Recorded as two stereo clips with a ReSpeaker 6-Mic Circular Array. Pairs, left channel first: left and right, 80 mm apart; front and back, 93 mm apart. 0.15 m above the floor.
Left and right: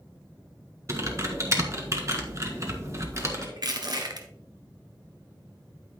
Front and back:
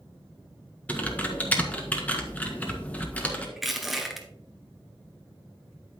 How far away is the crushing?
About 1.3 m.